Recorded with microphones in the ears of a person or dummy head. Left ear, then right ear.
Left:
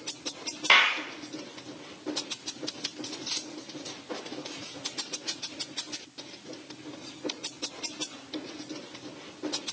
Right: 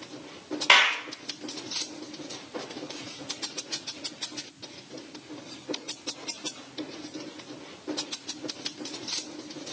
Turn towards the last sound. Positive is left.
turn(degrees=-15)  # may be behind; listen again after turning